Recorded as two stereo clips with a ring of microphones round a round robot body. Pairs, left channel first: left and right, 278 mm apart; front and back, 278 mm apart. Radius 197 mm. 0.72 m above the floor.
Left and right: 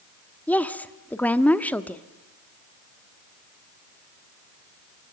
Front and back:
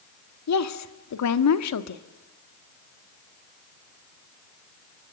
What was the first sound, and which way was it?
A woman speaking, 5° left.